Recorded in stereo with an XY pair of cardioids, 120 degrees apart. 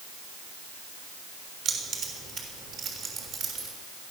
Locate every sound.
1.6 s keys jangling: 60° right, 6.5 m